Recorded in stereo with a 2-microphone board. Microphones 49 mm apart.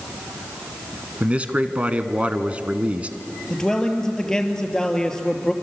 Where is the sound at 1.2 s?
25° right (ahead or behind), 1.4 m.